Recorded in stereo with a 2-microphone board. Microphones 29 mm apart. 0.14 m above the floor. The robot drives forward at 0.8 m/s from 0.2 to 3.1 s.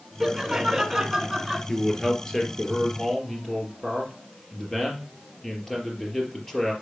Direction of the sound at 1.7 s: 25° left (ahead or behind).